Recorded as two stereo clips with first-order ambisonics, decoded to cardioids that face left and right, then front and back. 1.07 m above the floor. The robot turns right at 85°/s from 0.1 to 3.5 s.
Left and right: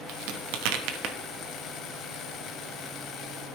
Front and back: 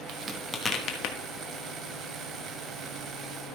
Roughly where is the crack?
Behind right.